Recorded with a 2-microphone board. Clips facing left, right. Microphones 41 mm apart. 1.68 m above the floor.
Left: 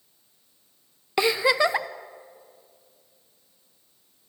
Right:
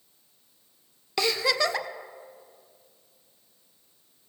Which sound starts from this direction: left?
A giggle, at 1.2 s.